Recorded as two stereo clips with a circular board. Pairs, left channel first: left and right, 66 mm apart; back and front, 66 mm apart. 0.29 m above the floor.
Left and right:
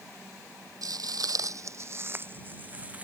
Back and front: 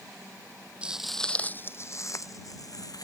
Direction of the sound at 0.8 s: 70° right.